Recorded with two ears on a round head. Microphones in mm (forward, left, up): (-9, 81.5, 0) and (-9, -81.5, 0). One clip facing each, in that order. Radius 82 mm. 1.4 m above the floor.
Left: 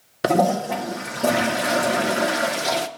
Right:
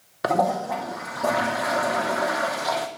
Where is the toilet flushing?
30° left (ahead or behind), 0.8 m.